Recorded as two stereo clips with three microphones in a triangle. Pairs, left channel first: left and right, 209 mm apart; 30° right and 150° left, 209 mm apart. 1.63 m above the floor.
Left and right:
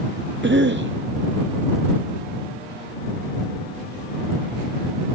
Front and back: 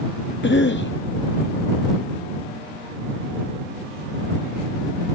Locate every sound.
0.4 s a cough: 60° right